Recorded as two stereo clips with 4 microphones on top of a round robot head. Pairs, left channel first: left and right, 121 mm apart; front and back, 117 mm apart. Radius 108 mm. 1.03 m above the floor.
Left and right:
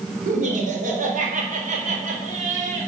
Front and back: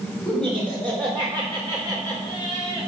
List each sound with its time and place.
0.2 s laughter: 85° right, 4 m; by 2.9 s 70° right, 5 m